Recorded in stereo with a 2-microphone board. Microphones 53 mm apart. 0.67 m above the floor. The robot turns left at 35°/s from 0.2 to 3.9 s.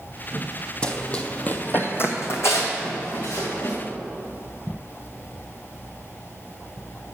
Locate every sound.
0.8 s running footsteps: 20° left (ahead or behind), 1.0 m; by 3.8 s 65° left (ahead or behind), 3 m